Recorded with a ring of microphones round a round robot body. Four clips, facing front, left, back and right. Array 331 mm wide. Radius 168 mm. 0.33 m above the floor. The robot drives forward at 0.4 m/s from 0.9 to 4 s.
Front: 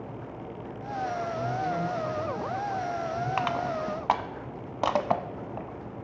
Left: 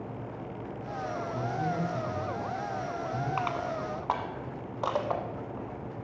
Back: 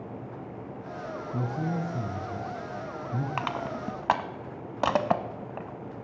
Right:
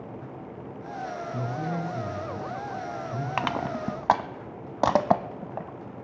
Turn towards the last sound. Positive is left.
turn(degrees=-105)